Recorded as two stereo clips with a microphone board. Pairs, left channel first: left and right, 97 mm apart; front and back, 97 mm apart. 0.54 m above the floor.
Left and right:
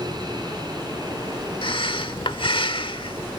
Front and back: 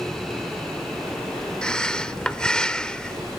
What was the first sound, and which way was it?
Breathing, 80° left.